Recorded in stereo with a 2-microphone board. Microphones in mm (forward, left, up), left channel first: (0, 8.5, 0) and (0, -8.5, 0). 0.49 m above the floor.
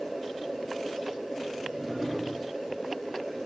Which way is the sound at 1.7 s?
20° right (ahead or behind).